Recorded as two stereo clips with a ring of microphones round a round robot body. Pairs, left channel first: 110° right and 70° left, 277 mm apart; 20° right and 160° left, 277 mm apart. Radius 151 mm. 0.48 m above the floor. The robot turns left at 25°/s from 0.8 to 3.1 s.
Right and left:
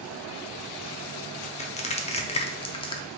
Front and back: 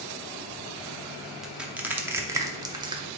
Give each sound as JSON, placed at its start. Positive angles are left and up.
{"t": 1.4, "sound": "crushing", "azimuth_deg": -115, "distance_m": 0.7}